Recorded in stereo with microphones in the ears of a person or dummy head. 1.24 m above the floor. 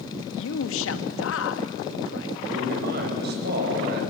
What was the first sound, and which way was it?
A man speaking, 85° left.